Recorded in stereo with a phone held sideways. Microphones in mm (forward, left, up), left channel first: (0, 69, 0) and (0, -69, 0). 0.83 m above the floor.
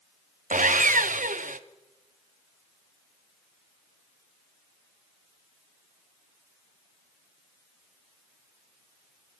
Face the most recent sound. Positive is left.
turn(degrees=-80)